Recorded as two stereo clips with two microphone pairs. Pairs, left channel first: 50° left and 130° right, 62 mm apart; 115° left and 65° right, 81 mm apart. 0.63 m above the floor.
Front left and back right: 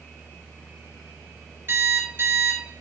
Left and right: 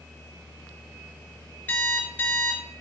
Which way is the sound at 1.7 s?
Straight behind.